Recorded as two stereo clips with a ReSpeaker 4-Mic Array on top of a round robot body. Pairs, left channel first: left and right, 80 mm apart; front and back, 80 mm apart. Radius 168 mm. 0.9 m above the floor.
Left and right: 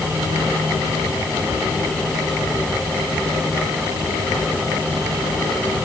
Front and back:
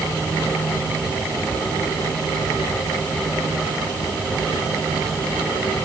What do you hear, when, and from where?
Only background noise.